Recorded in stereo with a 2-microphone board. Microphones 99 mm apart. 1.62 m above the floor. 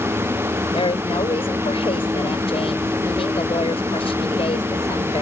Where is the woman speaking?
70° left (ahead or behind).